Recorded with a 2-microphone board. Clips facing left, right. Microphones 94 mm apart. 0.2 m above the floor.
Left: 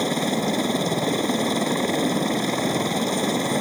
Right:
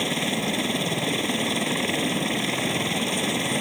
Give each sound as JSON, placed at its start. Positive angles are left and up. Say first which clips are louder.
{"t": 0.0, "sound": "a helicopter", "louder": "left 4 dB", "side_deg": 15}